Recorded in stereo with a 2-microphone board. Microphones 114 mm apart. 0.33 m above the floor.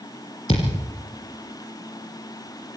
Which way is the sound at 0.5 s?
60° left (ahead or behind).